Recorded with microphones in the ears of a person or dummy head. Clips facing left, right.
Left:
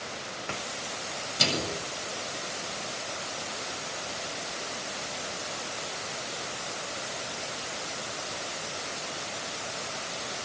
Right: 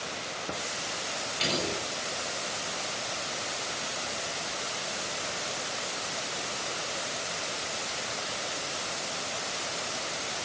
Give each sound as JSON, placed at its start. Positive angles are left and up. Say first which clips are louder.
{"t": 1.4, "sound": "a microwave", "louder": "even", "side_deg": 65, "distance_m": 8.0}